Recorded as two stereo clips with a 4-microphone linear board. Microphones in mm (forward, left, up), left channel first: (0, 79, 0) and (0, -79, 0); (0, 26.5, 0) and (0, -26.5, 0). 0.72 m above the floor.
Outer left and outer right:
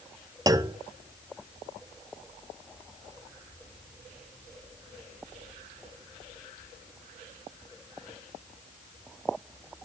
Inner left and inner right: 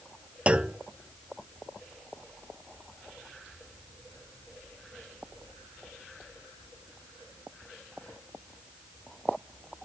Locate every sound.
0.5 s a clunk: 25° right (ahead or behind), 0.7 m